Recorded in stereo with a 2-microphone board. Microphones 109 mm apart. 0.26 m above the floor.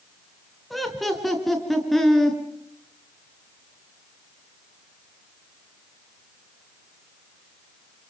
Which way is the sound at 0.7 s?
Centre (ahead or behind).